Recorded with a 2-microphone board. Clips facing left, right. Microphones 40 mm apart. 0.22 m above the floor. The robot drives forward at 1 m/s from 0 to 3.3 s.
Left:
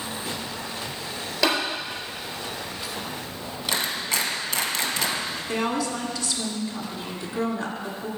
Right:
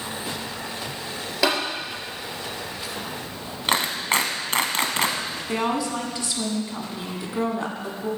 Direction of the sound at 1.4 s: 5° right (ahead or behind).